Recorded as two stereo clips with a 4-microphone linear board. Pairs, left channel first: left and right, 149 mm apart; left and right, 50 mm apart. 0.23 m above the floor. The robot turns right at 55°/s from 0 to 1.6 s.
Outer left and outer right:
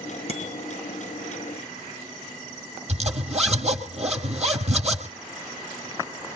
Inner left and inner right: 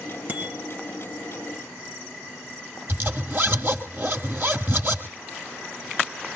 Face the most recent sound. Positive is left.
turn(degrees=-45)  # may be behind; listen again after turning